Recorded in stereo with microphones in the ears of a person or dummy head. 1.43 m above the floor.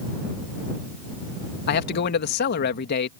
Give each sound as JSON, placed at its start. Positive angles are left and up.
{"t": 1.7, "sound": "a man speaking", "side_deg": 55}